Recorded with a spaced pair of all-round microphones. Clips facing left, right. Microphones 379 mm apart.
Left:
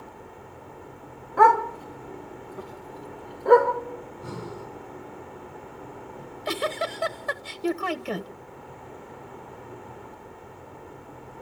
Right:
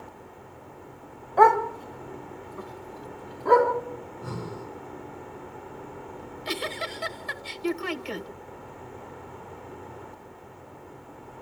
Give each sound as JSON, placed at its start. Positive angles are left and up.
{"t": 1.4, "sound": "a dog barking", "side_deg": 20, "distance_m": 1.7}
{"t": 4.0, "sound": "breathing", "side_deg": -40, "distance_m": 9.0}
{"t": 6.2, "sound": "a giggle", "side_deg": 60, "distance_m": 1.1}